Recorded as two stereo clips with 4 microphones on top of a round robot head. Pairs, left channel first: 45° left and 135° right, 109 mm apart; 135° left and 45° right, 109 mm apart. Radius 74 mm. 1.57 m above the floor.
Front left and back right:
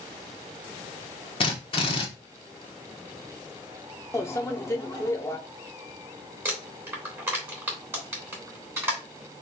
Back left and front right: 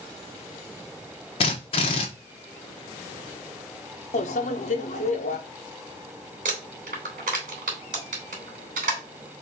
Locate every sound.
1.4 s a drill: 95° left, 1.0 m
4.1 s a microwave: 115° left, 0.7 m
6.5 s crumpling: 60° right, 3 m